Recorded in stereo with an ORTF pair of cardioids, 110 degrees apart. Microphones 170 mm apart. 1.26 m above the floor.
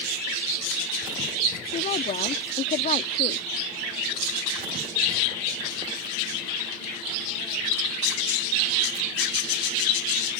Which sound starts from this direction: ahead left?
A woman speaking, at 1.7 s.